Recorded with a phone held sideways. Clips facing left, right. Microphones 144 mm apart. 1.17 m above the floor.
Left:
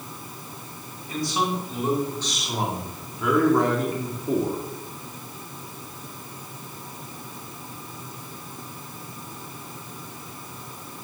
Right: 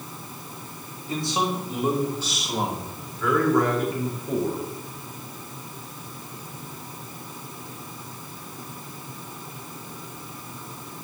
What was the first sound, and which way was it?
A man speaking, 25° right (ahead or behind).